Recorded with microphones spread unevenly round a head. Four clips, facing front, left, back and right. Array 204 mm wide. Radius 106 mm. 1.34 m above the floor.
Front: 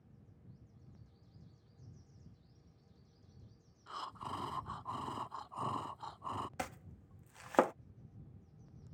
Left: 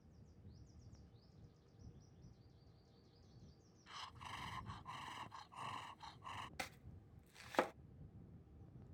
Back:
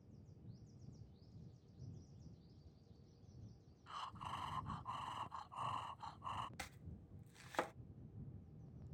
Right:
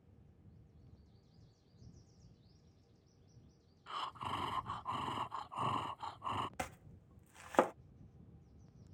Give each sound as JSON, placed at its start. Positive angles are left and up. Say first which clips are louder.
{"t": 3.9, "sound": "breathing", "louder": "right 12 dB, front 5 dB", "azimuth_deg": -40}
{"t": 6.6, "sound": "chopping", "louder": "right 7 dB, front 11 dB", "azimuth_deg": -25}